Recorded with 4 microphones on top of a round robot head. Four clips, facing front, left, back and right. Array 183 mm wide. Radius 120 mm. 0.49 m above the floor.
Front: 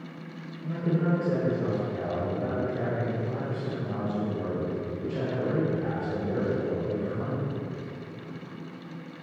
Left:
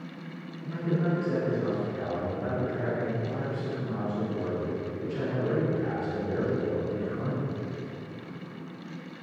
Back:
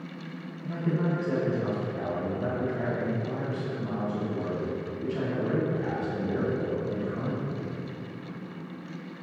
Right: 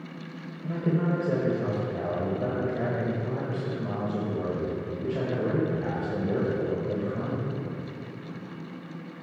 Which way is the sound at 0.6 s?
75° right.